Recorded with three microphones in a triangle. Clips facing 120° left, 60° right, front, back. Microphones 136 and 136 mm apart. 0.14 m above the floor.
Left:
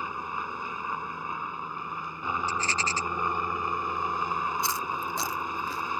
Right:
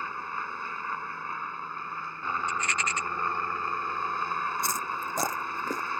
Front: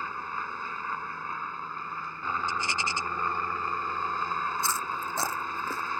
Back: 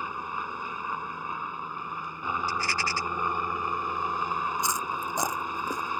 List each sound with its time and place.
0.0 s a helicopter: 145° left
2.5 s a rattle: 65° left
4.6 s chewing: 105° right